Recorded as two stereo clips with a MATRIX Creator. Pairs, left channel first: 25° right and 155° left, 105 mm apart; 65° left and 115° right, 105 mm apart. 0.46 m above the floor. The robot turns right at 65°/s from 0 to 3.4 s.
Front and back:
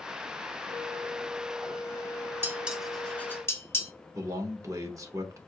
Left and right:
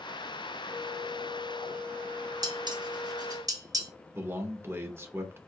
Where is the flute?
165° right, 0.6 m; by 3.4 s 10° left, 0.6 m.